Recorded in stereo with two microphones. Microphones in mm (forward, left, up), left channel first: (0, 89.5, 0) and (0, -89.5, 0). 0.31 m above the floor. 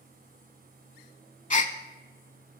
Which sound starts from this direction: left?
A gasp, at 1.5 s.